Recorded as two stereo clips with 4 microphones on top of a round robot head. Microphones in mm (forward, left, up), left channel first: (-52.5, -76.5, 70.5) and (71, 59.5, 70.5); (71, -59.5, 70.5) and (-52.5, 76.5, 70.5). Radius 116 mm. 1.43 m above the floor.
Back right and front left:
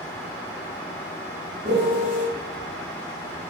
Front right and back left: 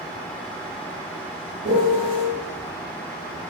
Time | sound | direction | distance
1.6 | a piano | 95° left | 0.9 m